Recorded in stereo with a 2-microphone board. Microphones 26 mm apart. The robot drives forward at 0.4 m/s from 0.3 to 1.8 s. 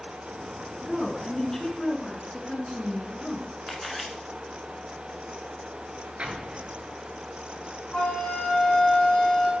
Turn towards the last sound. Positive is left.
turn(degrees=40)  # may be behind; listen again after turning